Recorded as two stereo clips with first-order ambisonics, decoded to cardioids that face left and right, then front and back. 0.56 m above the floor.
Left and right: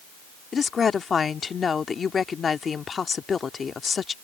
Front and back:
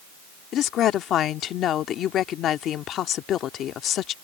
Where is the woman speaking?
30° left.